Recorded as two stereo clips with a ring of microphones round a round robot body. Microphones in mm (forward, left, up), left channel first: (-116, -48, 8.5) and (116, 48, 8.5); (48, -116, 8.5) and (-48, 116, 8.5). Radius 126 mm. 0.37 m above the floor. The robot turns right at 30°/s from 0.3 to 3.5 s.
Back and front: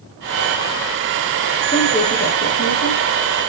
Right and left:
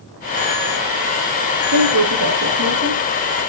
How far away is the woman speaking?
About 5.5 m.